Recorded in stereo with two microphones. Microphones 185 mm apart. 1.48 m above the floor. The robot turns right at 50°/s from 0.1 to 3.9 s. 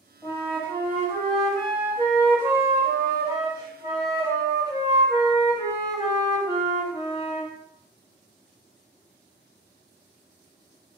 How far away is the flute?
About 1.3 m.